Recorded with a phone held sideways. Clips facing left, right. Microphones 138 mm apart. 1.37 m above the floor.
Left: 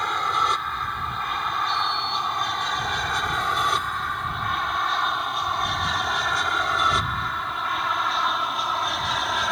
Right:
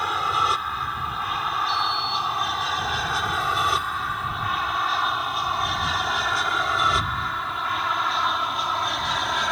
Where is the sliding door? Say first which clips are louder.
Even; 15° left (ahead or behind).